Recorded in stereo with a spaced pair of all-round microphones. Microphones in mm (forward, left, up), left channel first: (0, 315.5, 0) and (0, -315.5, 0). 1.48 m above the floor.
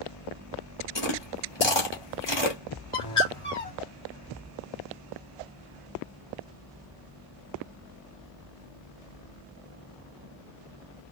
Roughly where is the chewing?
Left.